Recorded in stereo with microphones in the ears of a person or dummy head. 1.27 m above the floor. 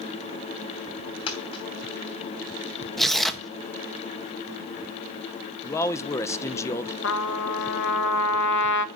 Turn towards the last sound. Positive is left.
turn(degrees=65)  # may be behind; listen again after turning